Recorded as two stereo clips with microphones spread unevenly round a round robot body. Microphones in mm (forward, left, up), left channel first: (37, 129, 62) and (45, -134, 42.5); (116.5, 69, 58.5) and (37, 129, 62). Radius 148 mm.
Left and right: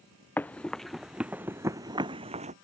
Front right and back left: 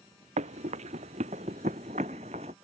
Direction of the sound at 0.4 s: 175° left.